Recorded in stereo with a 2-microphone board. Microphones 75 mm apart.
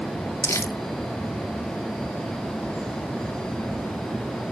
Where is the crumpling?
35° left (ahead or behind), 0.6 m.